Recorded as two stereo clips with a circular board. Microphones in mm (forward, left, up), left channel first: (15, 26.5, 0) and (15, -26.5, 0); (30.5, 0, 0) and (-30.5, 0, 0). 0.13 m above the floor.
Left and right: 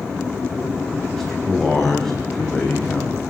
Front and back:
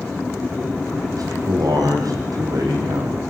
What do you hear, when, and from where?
1.1 s a man speaking: 175° left, 7 m